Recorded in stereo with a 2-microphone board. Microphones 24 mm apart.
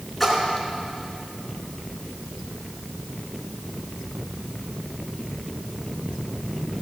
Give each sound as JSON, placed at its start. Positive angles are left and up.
{"t": 0.2, "sound": "a splash", "side_deg": 5, "distance_m": 2.5}